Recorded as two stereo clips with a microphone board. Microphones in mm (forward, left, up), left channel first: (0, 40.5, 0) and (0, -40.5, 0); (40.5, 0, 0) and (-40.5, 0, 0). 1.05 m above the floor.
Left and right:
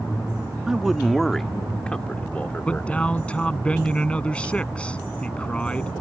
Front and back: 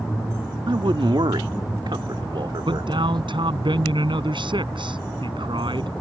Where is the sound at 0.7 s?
170° right; by 3.2 s 160° left.